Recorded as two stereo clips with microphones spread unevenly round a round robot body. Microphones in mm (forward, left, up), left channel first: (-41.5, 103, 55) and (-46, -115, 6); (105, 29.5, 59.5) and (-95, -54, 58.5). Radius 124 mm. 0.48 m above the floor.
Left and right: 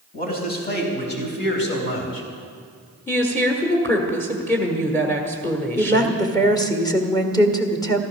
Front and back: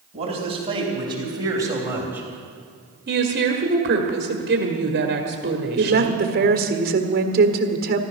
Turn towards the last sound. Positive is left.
turn(degrees=170)